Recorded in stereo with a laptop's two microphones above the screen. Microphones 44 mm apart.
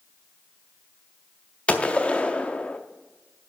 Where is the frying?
I don't hear frying.